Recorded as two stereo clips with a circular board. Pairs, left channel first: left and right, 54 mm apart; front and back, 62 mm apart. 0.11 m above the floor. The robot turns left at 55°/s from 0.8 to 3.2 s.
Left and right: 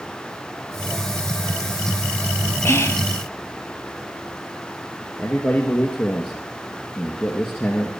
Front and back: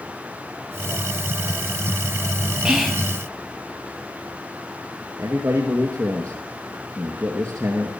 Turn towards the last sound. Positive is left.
turn(degrees=135)